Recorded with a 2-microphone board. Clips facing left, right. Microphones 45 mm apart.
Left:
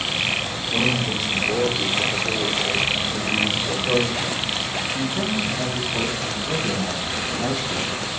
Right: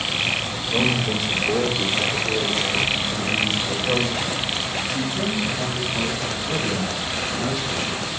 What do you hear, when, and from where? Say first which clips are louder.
0.7 s a man speaking: right 1 dB; 10° right (ahead or behind), 2 m; by 8.1 s 45° left (ahead or behind), 5 m